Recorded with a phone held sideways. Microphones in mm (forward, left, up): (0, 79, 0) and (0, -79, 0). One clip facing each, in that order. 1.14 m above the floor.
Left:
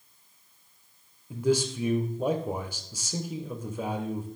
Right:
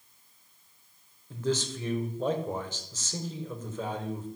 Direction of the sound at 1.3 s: 10° left (ahead or behind).